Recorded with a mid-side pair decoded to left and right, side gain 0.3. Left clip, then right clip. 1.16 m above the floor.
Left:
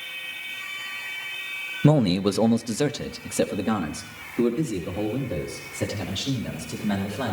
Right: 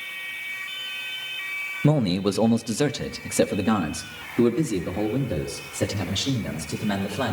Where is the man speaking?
35° left, 0.7 m; by 7.3 s 50° right, 4.5 m.